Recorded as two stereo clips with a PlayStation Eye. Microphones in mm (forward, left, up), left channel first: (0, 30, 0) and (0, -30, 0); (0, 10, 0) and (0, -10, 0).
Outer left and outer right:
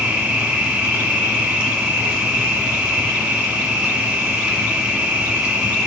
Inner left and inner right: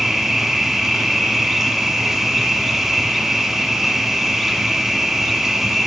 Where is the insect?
20° right (ahead or behind), 1.5 m.